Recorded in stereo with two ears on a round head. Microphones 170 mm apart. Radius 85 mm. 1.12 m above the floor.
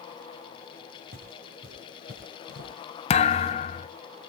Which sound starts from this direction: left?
A thud, at 3.1 s.